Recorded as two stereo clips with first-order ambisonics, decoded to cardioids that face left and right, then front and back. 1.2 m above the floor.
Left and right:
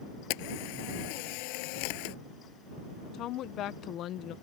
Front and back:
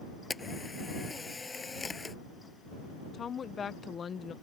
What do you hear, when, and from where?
0.3 s a camera shutter: 80° left
3.1 s a woman speaking: 60° left